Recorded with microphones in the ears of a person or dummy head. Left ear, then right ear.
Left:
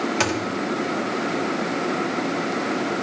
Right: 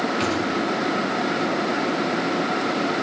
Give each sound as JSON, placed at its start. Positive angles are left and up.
{"t": 0.2, "sound": "a thud", "side_deg": 45, "distance_m": 1.5}